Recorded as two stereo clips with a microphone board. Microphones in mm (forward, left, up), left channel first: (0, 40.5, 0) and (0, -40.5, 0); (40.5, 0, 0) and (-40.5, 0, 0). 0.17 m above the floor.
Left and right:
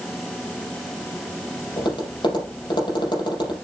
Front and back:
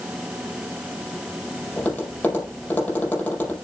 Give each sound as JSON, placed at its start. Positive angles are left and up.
{"t": 1.8, "sound": "tapping", "azimuth_deg": 70, "distance_m": 5.0}